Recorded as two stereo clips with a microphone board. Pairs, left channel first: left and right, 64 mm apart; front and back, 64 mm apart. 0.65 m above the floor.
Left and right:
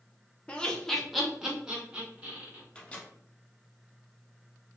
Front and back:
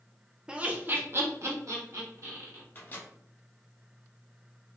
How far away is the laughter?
About 0.5 m.